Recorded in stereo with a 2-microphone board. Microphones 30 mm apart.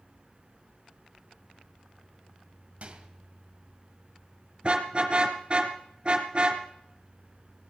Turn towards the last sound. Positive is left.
turn(degrees=-35)  # may be behind; listen again after turning